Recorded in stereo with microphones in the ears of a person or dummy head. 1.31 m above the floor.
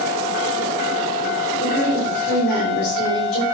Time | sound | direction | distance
1.6 | a woman speaking | 70° left (ahead or behind) | 3 m